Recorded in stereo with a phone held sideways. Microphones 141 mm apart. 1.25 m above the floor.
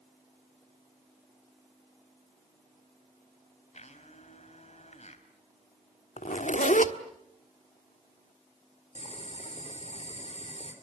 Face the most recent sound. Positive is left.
turn(degrees=50)  # may be behind; listen again after turning